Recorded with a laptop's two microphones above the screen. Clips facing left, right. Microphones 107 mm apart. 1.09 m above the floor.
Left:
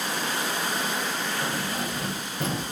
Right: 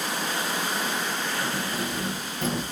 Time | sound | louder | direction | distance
1.4 | keys jangling | even | 50° left (ahead or behind) | 4.5 m